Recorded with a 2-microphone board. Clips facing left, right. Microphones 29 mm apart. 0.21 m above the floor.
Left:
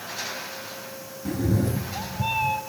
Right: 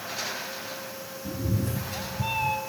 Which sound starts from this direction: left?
A cat meowing, at 1.2 s.